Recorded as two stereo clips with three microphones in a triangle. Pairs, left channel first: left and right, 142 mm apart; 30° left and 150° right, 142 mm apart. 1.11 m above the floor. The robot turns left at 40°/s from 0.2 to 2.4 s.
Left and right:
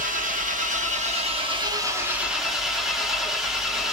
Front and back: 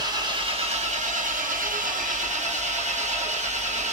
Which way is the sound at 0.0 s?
90° right.